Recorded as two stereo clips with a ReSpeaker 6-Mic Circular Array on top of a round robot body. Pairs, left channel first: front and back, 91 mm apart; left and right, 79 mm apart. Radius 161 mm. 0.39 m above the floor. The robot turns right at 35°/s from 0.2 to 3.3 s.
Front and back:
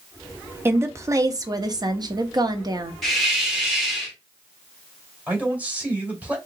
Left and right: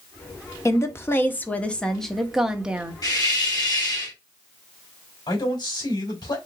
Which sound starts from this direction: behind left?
A woman speaking, at 0.7 s.